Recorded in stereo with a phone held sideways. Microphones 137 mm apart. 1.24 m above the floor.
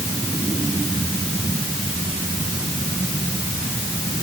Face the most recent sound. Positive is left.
No sound to turn to.